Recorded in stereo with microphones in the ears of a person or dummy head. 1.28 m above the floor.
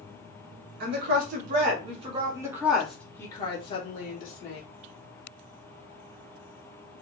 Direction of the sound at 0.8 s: 55° right (ahead or behind).